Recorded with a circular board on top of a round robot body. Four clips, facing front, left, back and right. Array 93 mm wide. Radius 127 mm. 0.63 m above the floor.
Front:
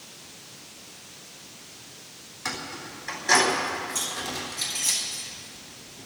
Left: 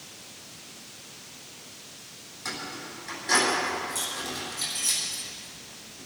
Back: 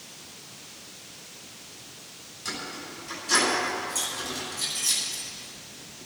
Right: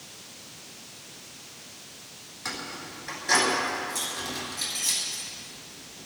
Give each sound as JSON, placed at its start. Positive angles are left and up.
{"t": 2.5, "sound": "keys jangling", "azimuth_deg": -20, "distance_m": 7.0}